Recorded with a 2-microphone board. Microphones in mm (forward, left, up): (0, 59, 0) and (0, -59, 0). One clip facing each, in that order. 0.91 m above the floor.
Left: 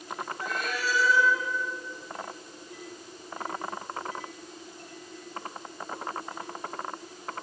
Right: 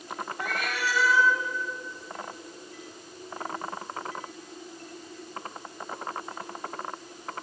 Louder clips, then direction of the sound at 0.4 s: Right 2 dB; 75° right (ahead or behind).